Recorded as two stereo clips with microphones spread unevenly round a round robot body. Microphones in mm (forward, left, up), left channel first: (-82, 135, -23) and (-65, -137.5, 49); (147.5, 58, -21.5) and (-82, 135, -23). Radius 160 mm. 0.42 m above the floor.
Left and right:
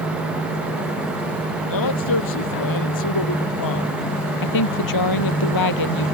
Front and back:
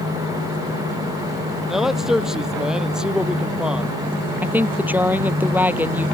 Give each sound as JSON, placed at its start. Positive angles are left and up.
{"t": 1.7, "sound": "a man speaking", "azimuth_deg": 75}
{"t": 4.4, "sound": "a woman speaking", "azimuth_deg": 80}